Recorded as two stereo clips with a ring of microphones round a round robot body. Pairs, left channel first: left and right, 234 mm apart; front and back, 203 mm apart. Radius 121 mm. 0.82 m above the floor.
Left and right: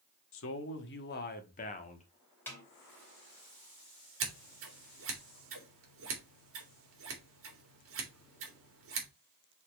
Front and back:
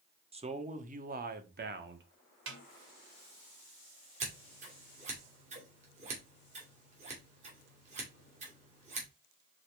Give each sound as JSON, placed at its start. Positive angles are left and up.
{"t": 0.3, "sound": "a man speaking", "azimuth_deg": 120, "distance_m": 1.4}
{"t": 2.5, "sound": "a snare drum", "azimuth_deg": 170, "distance_m": 2.5}
{"t": 4.2, "sound": "scissors", "azimuth_deg": -120, "distance_m": 2.5}